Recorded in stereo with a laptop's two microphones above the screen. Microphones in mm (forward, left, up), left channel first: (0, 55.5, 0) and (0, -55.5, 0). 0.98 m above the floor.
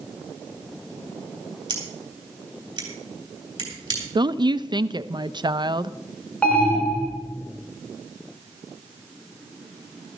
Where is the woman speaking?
40° right (ahead or behind), 0.5 m.